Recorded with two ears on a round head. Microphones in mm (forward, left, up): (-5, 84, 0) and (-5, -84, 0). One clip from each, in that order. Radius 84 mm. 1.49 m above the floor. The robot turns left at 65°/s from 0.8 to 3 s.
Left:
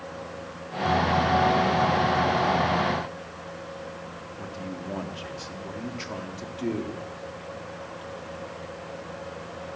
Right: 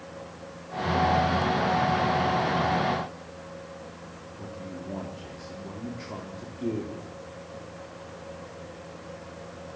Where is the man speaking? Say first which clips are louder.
Left 2 dB; 60° left (ahead or behind), 4 m.